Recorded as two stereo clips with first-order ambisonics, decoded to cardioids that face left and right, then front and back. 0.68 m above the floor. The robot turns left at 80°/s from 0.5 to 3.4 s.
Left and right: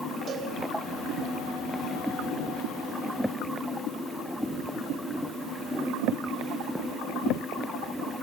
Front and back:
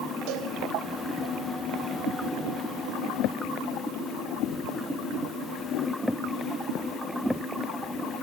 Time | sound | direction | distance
0.3 | a cowbell | 155° right | 4 m